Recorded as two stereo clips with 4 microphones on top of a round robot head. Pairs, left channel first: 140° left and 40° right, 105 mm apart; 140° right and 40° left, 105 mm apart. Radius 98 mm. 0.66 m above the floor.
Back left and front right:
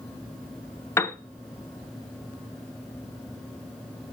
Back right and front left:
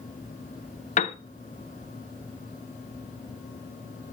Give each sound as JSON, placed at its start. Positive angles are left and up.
{"t": 1.0, "sound": "a piano", "azimuth_deg": -150, "distance_m": 0.9}